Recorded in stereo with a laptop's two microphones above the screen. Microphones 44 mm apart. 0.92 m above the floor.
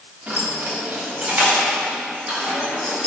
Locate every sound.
0.3 s keys jangling: 30° right (ahead or behind), 1.7 m; by 3.1 s 20° right (ahead or behind), 5 m